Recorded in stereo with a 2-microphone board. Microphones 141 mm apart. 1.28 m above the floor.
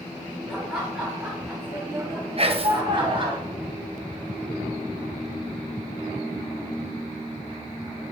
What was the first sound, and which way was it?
Laughter, centre (ahead or behind).